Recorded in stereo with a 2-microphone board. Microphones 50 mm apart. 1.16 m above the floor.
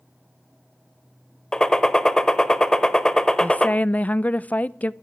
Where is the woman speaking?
30° left (ahead or behind), 0.6 m.